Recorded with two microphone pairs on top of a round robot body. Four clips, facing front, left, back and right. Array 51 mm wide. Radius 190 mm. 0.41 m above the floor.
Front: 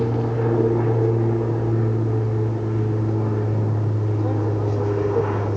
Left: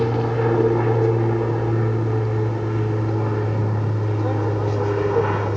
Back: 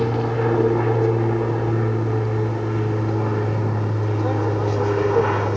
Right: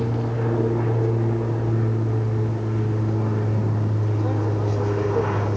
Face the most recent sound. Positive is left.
turn(degrees=155)